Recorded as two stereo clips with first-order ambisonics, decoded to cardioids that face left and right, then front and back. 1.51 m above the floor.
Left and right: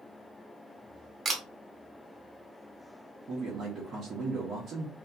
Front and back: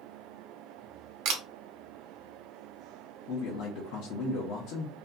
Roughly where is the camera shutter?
Behind.